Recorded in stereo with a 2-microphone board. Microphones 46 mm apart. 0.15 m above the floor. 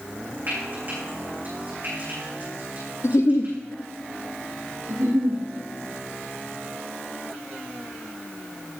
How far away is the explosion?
No explosion in this recording.